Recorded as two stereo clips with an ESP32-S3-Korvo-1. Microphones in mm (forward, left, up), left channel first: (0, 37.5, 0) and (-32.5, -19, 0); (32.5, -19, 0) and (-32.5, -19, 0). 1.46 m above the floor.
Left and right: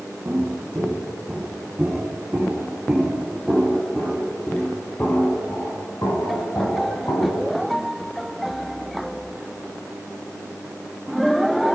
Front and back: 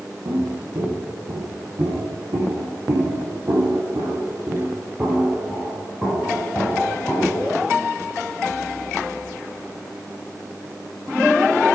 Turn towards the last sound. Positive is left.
turn(degrees=70)